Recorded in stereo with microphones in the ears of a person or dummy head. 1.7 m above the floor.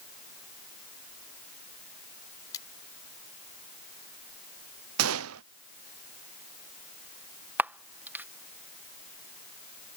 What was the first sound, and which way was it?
Cutlery clinking, 25° left (ahead or behind).